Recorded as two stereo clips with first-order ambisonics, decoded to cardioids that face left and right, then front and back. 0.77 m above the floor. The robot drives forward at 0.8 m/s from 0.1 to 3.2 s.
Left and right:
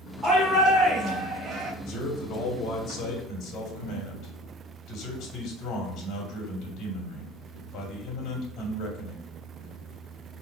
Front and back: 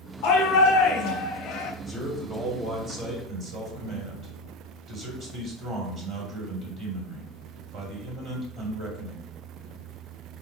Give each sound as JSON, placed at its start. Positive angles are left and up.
{"t": 0.2, "sound": "a shout", "azimuth_deg": -20, "distance_m": 1.9}
{"t": 1.9, "sound": "a man speaking", "azimuth_deg": 105, "distance_m": 1.9}